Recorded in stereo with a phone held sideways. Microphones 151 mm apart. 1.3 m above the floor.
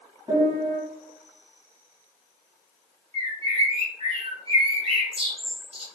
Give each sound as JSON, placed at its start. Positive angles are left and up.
{"t": 0.3, "sound": "a piano", "side_deg": -25, "distance_m": 1.7}
{"t": 3.1, "sound": "a bird", "side_deg": -40, "distance_m": 0.8}